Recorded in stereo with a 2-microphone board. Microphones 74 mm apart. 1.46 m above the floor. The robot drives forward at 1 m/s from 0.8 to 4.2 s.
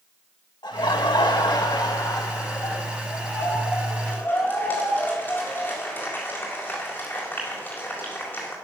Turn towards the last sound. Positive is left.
turn(degrees=25)  # may be behind; listen again after turning